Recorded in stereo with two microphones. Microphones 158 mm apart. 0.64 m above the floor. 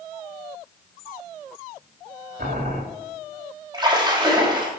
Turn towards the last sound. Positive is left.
turn(degrees=-25)  # may be behind; listen again after turning